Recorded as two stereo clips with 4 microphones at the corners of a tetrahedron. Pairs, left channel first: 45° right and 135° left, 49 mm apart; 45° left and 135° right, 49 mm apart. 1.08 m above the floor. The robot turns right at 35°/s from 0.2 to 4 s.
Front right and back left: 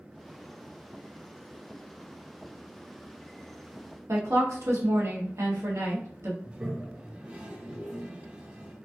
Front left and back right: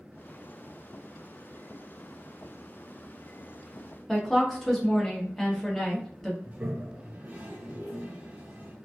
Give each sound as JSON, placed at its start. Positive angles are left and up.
{"t": 4.1, "sound": "a woman speaking", "azimuth_deg": 130, "distance_m": 1.0}
{"t": 6.5, "sound": "a toilet flushing", "azimuth_deg": -170, "distance_m": 0.6}